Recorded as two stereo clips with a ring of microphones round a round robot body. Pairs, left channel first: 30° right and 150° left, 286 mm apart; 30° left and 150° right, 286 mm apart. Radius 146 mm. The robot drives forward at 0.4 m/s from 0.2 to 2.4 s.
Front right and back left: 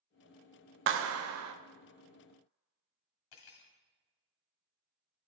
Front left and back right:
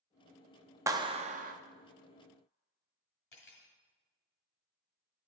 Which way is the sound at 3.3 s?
25° right.